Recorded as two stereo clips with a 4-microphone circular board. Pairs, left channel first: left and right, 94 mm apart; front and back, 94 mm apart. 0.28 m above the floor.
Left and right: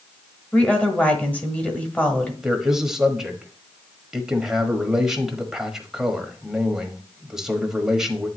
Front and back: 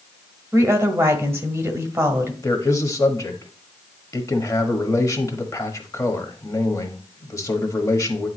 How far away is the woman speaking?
About 1.3 m.